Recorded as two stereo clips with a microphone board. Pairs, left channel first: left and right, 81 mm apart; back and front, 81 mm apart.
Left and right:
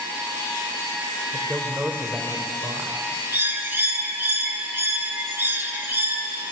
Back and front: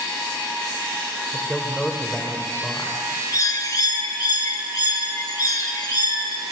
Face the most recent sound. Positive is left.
turn(degrees=-150)